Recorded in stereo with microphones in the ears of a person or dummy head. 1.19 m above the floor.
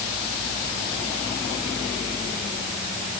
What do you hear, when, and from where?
Only background noise.